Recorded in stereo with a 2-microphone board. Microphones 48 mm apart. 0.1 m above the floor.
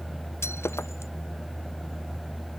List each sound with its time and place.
0.4 s breaking glass: 70° left (ahead or behind)